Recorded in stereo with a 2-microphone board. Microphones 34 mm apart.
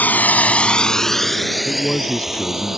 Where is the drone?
65° left (ahead or behind); by 2.8 s 10° right (ahead or behind).